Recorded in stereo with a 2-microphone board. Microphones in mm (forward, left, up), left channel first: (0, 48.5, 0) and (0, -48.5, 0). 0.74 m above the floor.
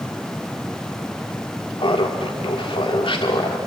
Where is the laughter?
70° left (ahead or behind), 1.7 m.